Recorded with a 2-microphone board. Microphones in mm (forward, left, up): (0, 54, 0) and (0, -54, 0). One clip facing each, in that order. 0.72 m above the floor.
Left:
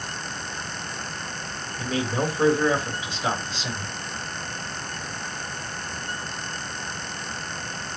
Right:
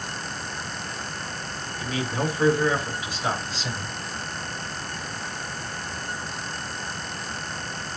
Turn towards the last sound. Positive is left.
turn(degrees=20)  # may be behind; listen again after turning